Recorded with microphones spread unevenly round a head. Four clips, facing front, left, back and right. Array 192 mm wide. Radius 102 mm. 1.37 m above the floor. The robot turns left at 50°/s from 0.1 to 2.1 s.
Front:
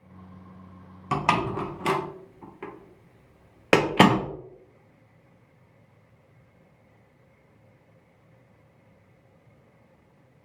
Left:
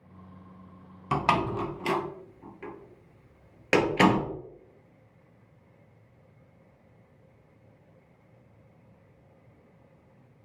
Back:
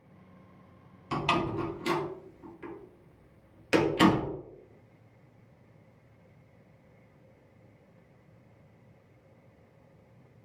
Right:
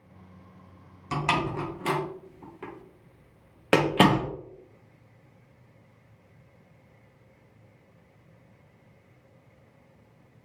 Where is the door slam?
25° left, 1.0 m; by 4.3 s 25° right, 1.0 m.